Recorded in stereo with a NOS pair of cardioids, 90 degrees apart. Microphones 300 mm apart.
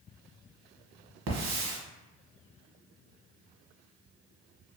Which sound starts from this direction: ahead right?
A hiss, at 1.3 s.